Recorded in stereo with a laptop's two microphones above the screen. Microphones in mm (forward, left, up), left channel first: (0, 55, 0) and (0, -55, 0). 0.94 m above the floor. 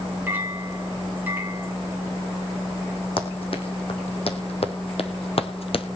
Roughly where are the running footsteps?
Left.